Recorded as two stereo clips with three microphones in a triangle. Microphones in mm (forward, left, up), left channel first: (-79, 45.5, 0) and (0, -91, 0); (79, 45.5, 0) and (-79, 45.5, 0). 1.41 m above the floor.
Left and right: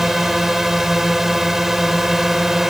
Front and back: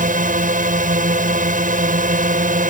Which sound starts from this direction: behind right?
A drone, at 0.0 s.